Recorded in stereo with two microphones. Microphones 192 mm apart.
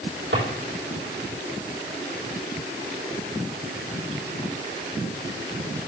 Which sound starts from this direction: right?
A drawer, at 0.3 s.